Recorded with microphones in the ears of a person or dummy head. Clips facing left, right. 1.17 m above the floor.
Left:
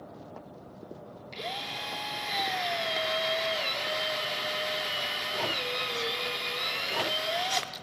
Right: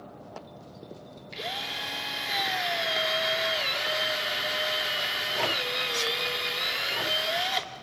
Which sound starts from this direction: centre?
A drill, at 1.3 s.